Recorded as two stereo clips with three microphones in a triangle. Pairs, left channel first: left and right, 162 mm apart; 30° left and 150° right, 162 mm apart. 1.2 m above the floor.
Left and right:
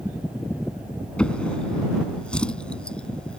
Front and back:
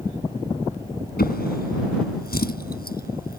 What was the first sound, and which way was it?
A drawer, 5° left.